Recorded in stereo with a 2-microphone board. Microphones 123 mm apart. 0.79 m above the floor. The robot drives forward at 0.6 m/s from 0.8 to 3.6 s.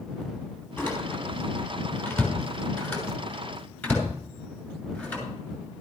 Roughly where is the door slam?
Left.